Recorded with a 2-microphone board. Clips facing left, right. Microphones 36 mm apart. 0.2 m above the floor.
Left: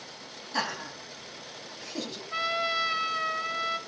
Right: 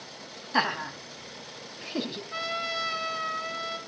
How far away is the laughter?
About 1.0 m.